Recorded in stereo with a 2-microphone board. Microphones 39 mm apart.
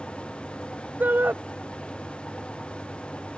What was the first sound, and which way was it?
A shout, 55° right (ahead or behind).